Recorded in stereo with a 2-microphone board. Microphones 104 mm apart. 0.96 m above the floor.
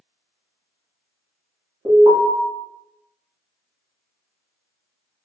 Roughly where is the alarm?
Right.